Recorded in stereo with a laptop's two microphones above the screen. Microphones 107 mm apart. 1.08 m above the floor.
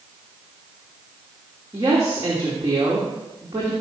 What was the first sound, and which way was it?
A woman speaking, 25° right (ahead or behind).